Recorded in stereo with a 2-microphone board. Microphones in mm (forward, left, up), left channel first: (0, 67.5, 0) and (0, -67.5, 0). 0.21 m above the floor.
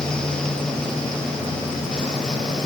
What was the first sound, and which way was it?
Only background noise.